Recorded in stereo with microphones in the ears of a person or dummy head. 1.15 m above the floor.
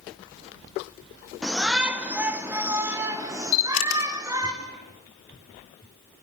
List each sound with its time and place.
1.4 s a shout: centre (ahead or behind), 2 m; by 4.5 s 20° right (ahead or behind), 4 m
3.5 s a camera shutter: 75° left (ahead or behind), 4 m